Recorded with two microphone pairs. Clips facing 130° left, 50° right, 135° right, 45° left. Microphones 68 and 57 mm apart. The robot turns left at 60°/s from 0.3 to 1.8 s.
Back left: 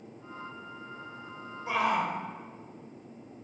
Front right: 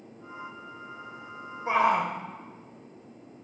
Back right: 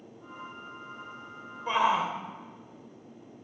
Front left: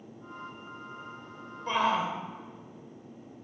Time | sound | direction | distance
1.7 | a shout | 55° right | 0.9 m